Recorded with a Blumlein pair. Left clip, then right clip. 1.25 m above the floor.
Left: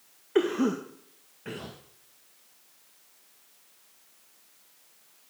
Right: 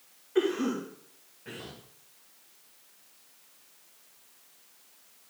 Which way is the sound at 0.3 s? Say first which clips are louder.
Left 2 dB; 60° left.